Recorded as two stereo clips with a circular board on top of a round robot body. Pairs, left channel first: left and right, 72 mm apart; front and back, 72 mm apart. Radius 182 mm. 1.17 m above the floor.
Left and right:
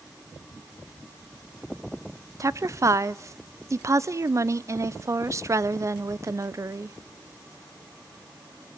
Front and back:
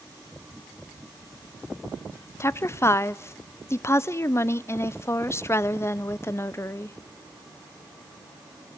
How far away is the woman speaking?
About 0.8 m.